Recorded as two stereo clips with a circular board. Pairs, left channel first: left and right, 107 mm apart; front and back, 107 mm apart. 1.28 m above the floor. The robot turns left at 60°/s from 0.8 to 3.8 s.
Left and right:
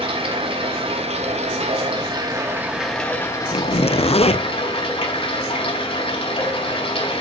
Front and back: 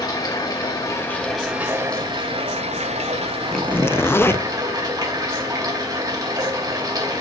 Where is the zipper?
85° left, 0.6 m; by 4.5 s 70° left, 0.6 m.